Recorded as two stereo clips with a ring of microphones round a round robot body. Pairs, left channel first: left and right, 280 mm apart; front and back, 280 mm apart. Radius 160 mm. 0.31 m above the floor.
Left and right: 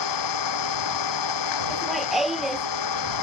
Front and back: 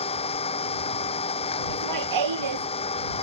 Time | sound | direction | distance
0.0 | an engine running | 70° left | ?
1.7 | laughter | straight behind | ?